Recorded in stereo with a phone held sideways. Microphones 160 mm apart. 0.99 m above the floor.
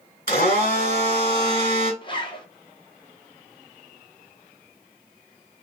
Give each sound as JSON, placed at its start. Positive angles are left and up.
{"t": 0.3, "sound": "a blender", "side_deg": 65, "distance_m": 1.5}
{"t": 2.0, "sound": "a zipper", "side_deg": 30, "distance_m": 0.6}